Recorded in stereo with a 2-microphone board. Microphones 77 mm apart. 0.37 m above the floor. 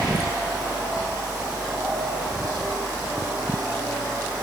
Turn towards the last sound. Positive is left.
No sound to turn to.